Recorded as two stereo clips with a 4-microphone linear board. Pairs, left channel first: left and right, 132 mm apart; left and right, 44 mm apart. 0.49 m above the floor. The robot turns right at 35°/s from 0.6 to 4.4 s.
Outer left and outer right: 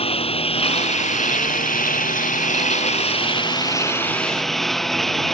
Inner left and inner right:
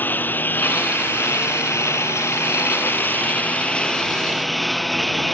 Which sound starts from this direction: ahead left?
A lawn mower, at 0.0 s.